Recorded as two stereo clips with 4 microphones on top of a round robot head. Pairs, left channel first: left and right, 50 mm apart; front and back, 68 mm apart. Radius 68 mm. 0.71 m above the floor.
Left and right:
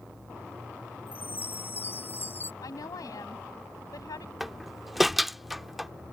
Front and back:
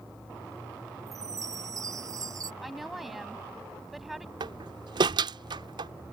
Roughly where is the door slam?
Behind.